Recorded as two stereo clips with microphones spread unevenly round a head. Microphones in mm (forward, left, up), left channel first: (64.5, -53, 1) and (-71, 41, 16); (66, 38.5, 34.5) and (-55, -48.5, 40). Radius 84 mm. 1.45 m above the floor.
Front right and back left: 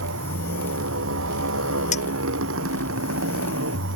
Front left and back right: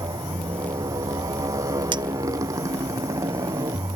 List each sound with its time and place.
0.0 s a motorcycle: 145° left
1.9 s a clink: 85° right